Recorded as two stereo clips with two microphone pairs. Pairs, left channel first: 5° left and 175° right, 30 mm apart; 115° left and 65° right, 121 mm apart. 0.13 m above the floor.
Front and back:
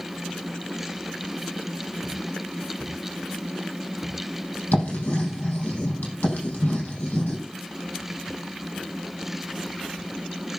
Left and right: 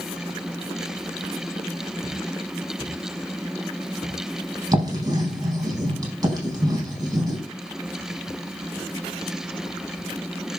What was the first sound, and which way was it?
Writing, 10° right.